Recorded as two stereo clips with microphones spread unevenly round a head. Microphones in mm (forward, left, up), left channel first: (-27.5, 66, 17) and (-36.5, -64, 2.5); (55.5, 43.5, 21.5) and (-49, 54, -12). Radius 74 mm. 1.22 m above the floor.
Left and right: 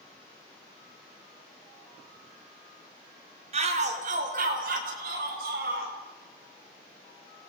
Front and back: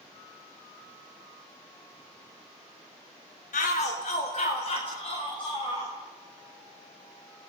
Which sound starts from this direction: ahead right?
A shout, at 3.5 s.